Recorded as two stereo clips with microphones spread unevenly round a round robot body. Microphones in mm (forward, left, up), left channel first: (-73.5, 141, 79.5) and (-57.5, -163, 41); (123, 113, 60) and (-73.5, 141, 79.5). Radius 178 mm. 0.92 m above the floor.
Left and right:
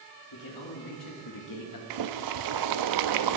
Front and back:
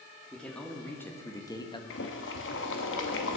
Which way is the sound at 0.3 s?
80° left.